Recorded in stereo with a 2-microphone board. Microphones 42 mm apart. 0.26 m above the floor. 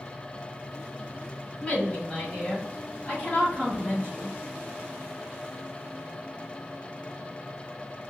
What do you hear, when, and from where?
1.6 s a woman speaking: 25° left (ahead or behind), 1.5 m; by 4.4 s 30° left (ahead or behind), 1.8 m